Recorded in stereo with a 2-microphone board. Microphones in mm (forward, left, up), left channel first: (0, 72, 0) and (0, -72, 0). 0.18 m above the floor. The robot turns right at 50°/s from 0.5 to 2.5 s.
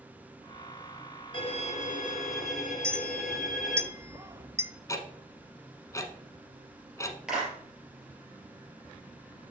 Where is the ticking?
25° left (ahead or behind), 0.8 m.